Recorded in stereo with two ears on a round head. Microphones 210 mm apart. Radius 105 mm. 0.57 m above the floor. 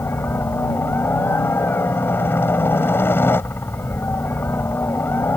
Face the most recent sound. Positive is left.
turn(degrees=10)  # may be behind; listen again after turning